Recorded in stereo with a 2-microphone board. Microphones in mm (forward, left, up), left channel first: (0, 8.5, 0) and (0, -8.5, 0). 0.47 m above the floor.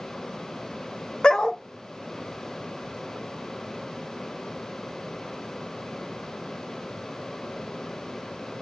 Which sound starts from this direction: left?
A dog barking, at 1.2 s.